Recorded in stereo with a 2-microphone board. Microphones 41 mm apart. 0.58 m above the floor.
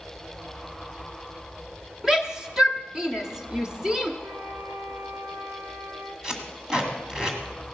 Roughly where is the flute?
Right.